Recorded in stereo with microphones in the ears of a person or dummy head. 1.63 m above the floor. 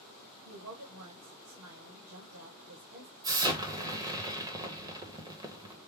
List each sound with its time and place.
0.5 s a woman speaking: 80° right, 1.4 m
3.2 s an explosion: 15° right (ahead or behind), 0.8 m